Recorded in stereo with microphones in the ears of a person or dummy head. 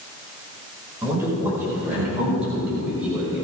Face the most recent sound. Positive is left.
turn(degrees=0)  # may be behind; listen again after turning